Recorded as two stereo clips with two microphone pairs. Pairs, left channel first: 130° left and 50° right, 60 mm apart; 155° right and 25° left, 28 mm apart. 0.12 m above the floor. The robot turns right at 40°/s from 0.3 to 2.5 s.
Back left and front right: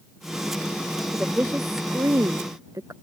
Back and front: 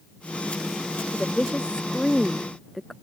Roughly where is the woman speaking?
Behind right.